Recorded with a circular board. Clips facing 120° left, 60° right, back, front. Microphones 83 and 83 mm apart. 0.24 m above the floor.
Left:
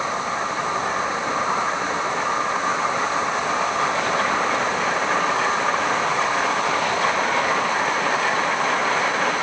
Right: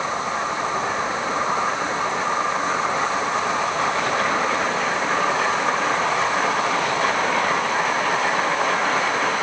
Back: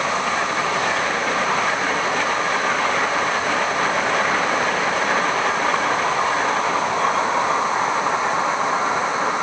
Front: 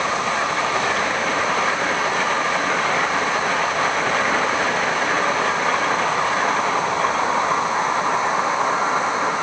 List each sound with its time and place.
Only background noise.